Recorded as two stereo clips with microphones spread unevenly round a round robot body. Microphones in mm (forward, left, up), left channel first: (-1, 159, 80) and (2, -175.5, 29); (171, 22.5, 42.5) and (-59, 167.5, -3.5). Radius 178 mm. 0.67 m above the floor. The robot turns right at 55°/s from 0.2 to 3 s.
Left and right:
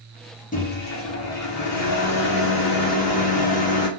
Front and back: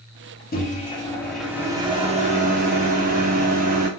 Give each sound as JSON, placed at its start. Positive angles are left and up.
{"t": 0.5, "sound": "a microwave", "azimuth_deg": 25, "distance_m": 0.9}